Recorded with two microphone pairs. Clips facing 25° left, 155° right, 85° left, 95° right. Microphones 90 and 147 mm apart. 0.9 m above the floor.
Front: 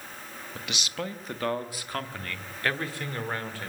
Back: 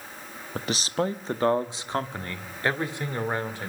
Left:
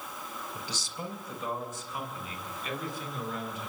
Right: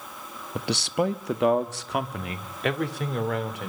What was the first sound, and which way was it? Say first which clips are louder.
A man speaking: back 8 dB, right 20 dB; 110° right.